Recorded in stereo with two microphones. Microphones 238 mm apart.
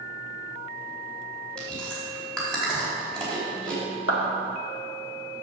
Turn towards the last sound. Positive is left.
turn(degrees=65)  # may be behind; listen again after turning